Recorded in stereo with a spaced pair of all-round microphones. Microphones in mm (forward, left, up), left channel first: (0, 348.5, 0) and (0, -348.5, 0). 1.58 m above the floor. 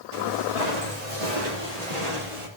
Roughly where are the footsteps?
Right.